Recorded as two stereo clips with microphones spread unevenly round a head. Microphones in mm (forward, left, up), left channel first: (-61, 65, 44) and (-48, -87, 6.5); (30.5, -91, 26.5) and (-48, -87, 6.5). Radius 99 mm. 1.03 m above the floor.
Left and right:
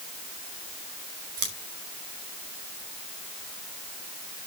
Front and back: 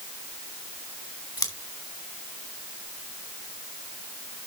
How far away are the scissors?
About 5 m.